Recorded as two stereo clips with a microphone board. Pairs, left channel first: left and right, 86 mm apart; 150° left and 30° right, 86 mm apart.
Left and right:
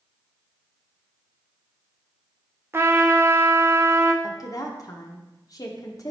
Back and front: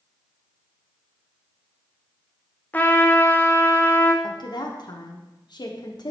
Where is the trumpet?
145° right, 0.7 m.